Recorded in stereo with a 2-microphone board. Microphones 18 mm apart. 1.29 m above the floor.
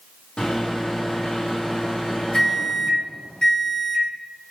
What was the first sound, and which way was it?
A microwave, 55° left (ahead or behind).